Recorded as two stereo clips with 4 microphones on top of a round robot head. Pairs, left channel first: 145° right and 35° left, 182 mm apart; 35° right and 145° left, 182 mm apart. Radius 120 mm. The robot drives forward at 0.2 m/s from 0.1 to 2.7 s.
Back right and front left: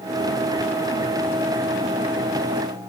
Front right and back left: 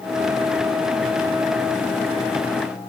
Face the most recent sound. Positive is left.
No sound to turn to.